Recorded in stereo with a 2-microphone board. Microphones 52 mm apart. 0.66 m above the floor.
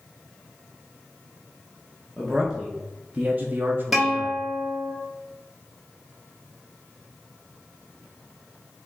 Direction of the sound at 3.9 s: Centre (ahead or behind).